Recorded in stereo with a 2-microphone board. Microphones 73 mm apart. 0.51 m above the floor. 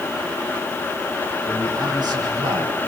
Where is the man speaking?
60° right (ahead or behind), 5 m; by 2.8 s 75° right (ahead or behind), 3.5 m.